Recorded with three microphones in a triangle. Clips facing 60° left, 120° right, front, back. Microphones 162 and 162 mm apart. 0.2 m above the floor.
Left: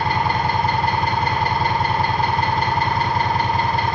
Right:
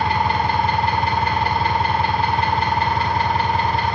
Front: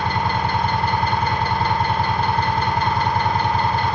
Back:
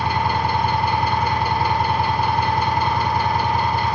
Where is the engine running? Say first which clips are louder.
Right 1 dB, back 1 dB; 100° left, 1.7 m.